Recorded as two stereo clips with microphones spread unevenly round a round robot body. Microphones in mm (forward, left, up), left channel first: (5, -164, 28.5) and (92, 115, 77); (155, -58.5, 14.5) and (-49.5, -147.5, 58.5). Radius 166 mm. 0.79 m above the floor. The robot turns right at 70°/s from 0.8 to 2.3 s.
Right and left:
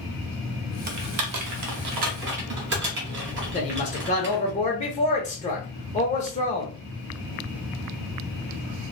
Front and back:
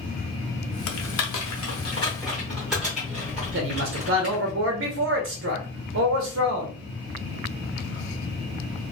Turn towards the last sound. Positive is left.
turn(degrees=-150)